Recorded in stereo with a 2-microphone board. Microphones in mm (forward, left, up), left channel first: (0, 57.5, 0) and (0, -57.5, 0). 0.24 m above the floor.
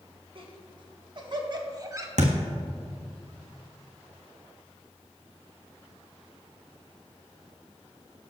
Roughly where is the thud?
Right.